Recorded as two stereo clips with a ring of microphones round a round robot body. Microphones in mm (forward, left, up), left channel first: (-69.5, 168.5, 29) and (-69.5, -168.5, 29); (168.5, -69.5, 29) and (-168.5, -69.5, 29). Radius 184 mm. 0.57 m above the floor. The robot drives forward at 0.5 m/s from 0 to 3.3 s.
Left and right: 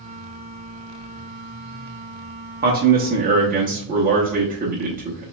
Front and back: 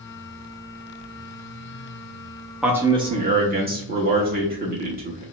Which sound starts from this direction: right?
A man speaking, at 2.6 s.